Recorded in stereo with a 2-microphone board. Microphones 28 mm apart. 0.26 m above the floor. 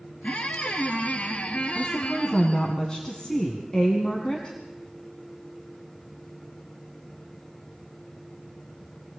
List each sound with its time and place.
0.2 s a squeak: 55° left (ahead or behind), 2 m
1.8 s a woman speaking: 30° left (ahead or behind), 2 m